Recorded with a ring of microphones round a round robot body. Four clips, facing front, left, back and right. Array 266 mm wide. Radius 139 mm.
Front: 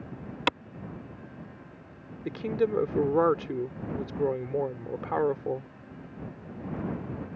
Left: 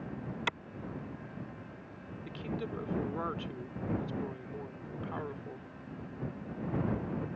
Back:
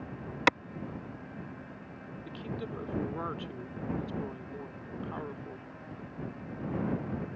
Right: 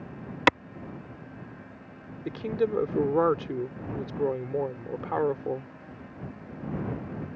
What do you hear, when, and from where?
0.5 s a clap: 100° right
2.2 s a woman speaking: 45° right